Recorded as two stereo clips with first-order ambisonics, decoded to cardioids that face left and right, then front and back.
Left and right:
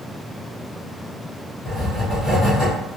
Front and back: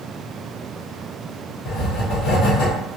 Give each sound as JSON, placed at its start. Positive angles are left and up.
{"t": 1.6, "sound": "writing", "azimuth_deg": 5, "distance_m": 1.5}